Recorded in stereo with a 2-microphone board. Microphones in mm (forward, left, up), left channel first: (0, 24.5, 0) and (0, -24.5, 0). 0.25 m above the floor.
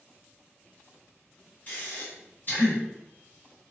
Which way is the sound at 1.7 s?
40° left (ahead or behind).